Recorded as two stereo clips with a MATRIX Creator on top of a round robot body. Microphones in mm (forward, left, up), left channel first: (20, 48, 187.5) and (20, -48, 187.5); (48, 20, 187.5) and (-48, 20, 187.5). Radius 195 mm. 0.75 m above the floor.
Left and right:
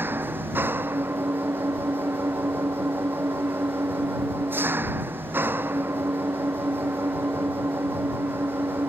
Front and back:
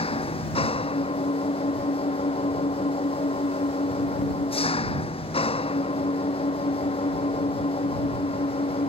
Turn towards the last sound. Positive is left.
turn(degrees=-20)